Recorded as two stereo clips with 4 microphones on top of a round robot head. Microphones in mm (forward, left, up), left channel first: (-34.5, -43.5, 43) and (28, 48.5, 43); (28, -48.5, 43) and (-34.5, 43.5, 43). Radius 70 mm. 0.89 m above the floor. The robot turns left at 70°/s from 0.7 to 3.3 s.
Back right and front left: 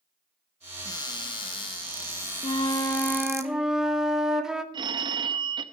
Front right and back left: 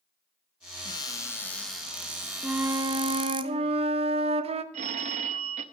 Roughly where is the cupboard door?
Right.